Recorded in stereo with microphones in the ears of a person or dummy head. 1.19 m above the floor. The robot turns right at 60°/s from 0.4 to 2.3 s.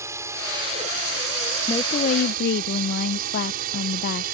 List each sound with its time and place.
0.0 s a drone: 15° right (ahead or behind); by 4.3 s 50° right (ahead or behind)
1.7 s a woman speaking: 15° left; by 4.2 s 55° left